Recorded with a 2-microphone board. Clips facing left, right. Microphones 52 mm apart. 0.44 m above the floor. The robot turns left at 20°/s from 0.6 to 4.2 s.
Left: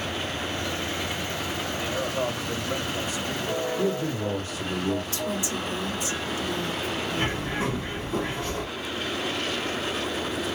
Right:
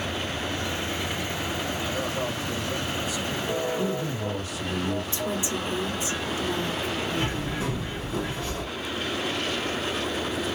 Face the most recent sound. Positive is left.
turn(degrees=45)  # may be behind; listen again after turning